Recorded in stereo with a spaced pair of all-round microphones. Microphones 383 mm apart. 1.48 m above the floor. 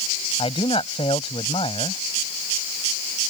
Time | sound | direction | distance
0.4 | a man speaking | 15° left (ahead or behind) | ?